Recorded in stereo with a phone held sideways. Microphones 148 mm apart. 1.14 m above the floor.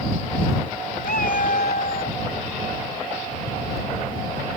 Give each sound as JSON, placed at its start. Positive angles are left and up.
{"t": 1.0, "sound": "a cat meowing", "side_deg": 80}